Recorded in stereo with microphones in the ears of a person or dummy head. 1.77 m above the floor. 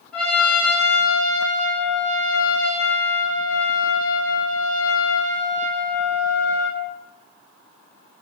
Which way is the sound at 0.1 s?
5° left (ahead or behind).